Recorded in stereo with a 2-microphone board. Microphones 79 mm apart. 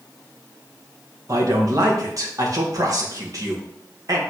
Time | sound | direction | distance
1.3 | a man speaking | 50° right (ahead or behind) | 1.6 m